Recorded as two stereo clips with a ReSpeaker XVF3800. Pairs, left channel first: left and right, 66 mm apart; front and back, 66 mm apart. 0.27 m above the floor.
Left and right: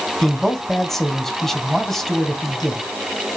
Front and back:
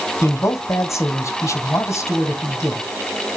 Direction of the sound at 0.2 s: 5° left.